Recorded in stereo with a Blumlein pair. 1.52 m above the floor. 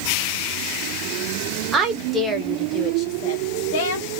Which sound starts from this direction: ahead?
A woman speaking, at 1.7 s.